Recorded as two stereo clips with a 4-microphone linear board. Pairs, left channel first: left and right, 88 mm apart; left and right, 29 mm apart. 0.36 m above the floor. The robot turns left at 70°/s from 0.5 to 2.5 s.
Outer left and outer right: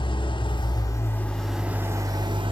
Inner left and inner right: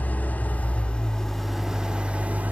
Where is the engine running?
70° left, 0.9 m; by 2.5 s 70° right, 0.9 m.